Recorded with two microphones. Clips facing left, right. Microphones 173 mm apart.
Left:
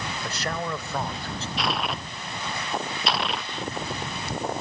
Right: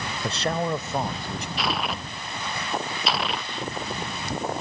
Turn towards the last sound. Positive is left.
turn(degrees=0)  # may be behind; listen again after turning